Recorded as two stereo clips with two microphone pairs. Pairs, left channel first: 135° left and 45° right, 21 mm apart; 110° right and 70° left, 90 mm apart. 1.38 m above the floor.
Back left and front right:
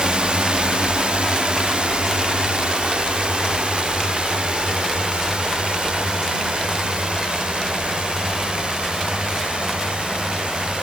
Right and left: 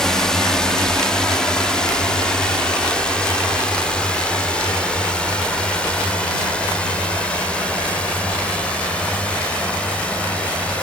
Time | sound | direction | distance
0.0 | a drone | 30° right | ?